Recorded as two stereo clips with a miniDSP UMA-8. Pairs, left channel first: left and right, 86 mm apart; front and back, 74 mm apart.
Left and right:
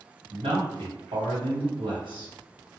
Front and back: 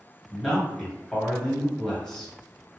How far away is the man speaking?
About 1.5 m.